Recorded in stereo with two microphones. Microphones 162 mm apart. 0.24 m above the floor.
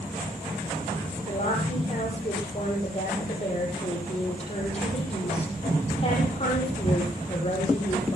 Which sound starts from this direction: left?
A woman speaking, at 1.3 s.